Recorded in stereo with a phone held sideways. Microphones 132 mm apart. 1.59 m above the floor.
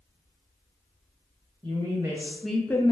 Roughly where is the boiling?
I don't hear boiling.